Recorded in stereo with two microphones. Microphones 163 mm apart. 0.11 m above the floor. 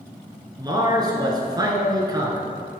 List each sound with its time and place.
0.6 s a man speaking: 25° right (ahead or behind), 1.2 m